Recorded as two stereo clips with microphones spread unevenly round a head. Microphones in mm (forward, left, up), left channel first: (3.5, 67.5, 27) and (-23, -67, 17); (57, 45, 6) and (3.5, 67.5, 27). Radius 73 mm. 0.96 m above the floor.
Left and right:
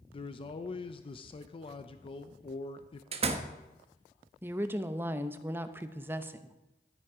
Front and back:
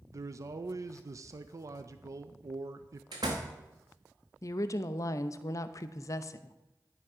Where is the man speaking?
120° left, 0.6 m.